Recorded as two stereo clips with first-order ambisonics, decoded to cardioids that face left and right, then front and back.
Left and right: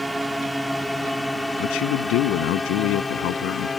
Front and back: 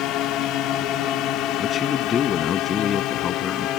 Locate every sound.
0.0 s a drone: 5° right; by 3.8 s 20° left
1.6 s a man speaking: 65° left